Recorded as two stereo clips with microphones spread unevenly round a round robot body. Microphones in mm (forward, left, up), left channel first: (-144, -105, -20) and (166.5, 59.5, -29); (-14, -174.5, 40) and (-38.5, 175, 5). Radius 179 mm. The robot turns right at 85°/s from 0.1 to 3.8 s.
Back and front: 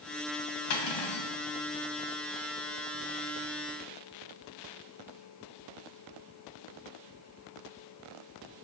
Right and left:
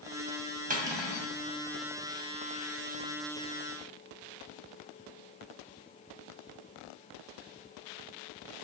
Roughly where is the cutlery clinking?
Behind.